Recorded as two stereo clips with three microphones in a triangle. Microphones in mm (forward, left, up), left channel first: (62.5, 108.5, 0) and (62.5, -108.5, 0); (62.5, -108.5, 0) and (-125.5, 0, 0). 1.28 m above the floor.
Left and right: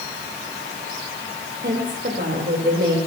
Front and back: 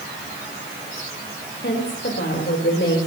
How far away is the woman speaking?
About 4 m.